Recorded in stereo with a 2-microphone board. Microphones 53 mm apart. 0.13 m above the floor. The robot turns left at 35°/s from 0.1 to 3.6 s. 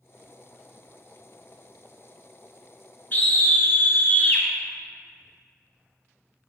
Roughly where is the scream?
Left.